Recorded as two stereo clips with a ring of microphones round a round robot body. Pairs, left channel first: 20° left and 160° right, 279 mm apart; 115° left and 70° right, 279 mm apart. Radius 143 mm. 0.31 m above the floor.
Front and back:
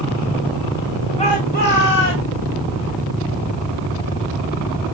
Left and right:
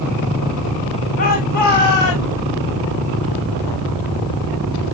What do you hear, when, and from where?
1.2 s a shout: 75° left, 1.8 m; by 2.3 s 60° left, 3 m